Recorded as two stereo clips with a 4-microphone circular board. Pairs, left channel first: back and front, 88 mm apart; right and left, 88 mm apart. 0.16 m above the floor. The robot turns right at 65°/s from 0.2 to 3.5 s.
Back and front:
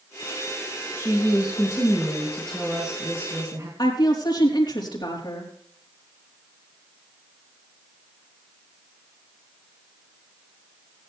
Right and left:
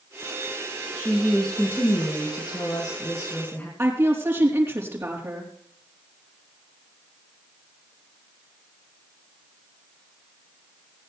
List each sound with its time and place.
0.9 s a woman speaking: 165° left, 2.5 m; by 3.7 s 30° right, 2.5 m
3.8 s a woman speaking: 150° left, 4 m